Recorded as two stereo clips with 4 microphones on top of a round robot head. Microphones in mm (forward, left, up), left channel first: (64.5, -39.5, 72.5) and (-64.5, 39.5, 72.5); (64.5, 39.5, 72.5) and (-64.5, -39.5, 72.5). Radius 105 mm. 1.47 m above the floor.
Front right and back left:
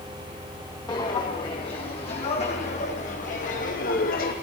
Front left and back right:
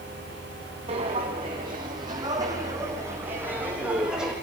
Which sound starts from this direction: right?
Footsteps, at 0.9 s.